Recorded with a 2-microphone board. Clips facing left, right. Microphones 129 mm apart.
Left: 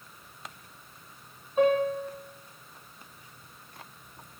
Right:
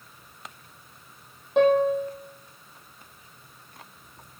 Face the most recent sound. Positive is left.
turn(degrees=-85)